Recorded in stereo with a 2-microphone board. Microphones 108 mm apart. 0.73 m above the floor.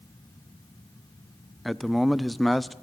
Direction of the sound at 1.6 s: Centre (ahead or behind).